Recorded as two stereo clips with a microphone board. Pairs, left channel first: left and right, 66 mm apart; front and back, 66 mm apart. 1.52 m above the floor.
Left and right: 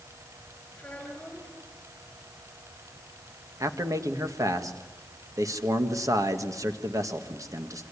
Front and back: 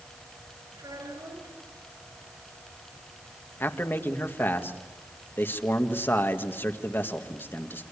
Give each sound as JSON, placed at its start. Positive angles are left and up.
{"t": 0.8, "sound": "a child speaking", "azimuth_deg": 155, "distance_m": 5.0}
{"t": 3.6, "sound": "a man speaking", "azimuth_deg": -55, "distance_m": 1.8}